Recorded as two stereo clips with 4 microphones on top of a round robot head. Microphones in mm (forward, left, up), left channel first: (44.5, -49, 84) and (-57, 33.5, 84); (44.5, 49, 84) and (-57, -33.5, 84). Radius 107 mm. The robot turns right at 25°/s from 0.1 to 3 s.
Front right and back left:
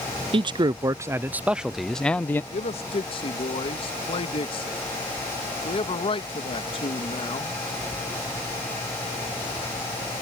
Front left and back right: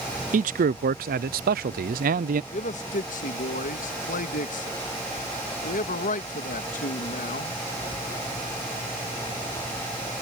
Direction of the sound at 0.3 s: 165° right.